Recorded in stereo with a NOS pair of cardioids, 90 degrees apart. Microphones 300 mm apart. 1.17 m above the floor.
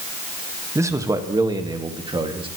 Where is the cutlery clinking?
I don't hear cutlery clinking.